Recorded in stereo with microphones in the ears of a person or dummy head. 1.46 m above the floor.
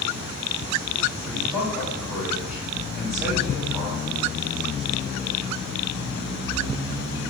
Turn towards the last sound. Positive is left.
turn(degrees=-5)  # may be behind; listen again after turning